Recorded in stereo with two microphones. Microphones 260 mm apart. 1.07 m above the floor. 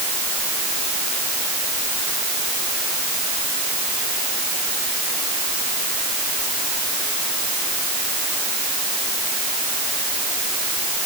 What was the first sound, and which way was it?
Only background noise.